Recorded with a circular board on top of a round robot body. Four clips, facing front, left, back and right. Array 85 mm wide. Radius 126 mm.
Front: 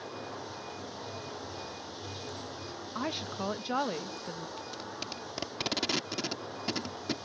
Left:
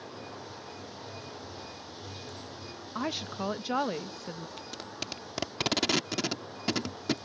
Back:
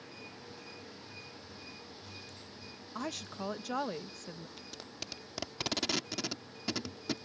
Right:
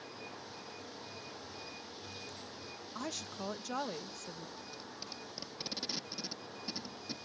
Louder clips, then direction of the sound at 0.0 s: Left 5 dB, front 9 dB; 20° left.